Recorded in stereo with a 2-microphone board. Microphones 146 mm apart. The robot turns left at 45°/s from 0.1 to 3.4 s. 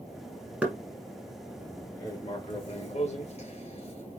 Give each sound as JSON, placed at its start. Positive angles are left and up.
{"t": 0.6, "sound": "knocking", "side_deg": -10, "distance_m": 1.3}
{"t": 2.0, "sound": "writing", "side_deg": 20, "distance_m": 2.5}